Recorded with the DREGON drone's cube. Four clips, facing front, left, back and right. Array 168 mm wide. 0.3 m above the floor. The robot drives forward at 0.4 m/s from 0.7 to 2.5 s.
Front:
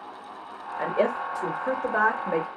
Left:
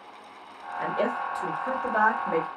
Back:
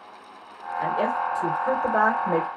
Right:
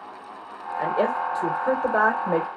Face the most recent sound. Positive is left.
turn(degrees=-120)